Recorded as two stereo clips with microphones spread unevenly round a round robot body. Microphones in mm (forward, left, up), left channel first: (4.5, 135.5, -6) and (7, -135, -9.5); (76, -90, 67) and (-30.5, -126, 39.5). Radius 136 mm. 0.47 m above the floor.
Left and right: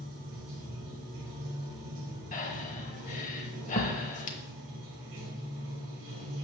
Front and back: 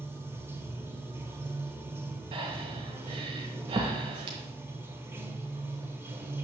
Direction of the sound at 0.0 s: 95° right.